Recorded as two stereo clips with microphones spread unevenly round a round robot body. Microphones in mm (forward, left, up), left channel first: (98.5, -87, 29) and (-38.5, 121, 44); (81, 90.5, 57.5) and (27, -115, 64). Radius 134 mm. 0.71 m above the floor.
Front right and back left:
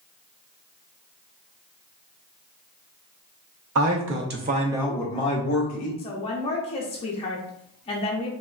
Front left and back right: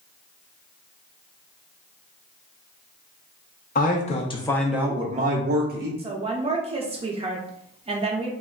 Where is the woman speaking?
75° right, 0.5 m.